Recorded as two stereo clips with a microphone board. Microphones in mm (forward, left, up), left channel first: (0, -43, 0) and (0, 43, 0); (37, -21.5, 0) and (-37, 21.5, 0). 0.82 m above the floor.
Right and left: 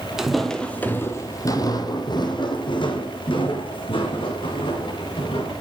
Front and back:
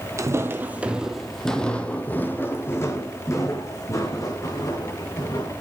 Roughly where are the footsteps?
Behind.